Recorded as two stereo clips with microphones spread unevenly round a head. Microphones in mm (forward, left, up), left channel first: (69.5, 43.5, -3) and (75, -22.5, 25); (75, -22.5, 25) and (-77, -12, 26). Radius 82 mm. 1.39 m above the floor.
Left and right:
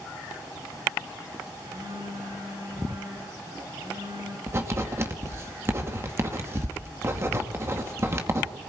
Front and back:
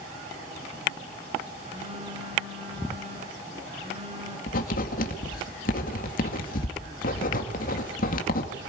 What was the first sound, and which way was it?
A phone buzzing, 135° right.